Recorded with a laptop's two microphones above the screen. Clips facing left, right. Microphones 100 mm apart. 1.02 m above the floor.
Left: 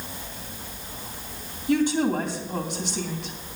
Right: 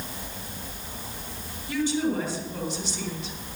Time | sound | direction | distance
1.7 | a woman speaking | 55° left (ahead or behind) | 2.5 m